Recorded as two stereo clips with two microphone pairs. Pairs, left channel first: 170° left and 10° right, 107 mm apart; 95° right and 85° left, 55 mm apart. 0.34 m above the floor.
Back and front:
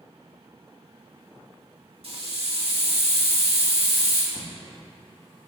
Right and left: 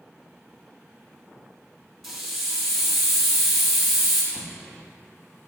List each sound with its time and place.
2.0 s a hiss: 10° right, 2.5 m
4.3 s an explosion: 175° right, 1.1 m